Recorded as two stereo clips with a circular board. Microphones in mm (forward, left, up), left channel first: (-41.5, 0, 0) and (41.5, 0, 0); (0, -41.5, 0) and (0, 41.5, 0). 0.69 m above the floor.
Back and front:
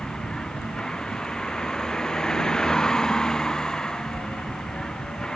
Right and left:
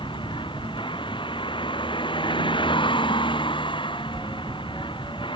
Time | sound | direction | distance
0.0 | a vehicle | 95° right | ?